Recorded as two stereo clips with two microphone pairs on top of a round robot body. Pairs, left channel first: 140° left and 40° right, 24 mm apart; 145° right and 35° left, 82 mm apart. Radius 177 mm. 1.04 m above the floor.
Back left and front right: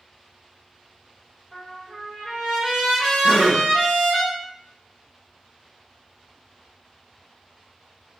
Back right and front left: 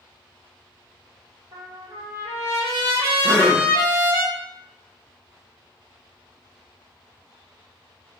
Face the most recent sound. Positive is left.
turn(degrees=110)